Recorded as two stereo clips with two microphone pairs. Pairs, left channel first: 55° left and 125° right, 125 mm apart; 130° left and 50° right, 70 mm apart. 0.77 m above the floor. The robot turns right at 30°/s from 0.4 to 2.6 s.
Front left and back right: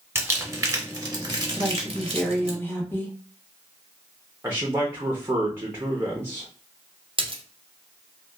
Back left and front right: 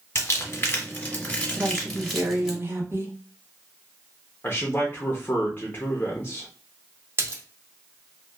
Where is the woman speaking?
45° right, 0.8 m; by 3.1 s 15° right, 0.8 m.